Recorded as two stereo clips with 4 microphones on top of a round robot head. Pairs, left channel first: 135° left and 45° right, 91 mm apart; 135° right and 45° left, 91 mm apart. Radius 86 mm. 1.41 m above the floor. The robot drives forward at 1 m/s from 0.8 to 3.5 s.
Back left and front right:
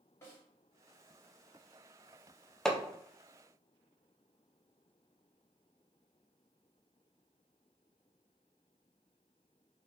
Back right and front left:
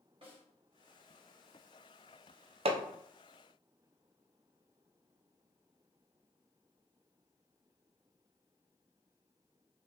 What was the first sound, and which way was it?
A snare drum, 70° left.